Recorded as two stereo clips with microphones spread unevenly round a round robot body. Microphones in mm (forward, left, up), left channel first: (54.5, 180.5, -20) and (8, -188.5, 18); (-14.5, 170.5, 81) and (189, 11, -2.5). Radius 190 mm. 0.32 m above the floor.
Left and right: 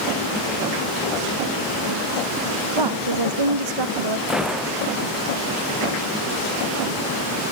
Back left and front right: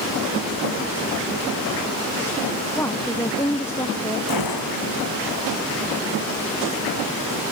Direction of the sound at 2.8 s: 135° right.